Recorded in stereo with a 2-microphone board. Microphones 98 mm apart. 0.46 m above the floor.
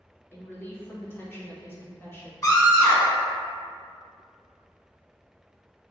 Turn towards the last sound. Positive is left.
turn(degrees=35)  # may be behind; listen again after turning